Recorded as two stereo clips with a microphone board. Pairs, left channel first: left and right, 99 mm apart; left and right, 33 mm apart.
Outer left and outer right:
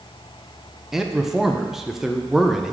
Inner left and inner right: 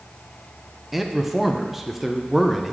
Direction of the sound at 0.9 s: 5° right (ahead or behind).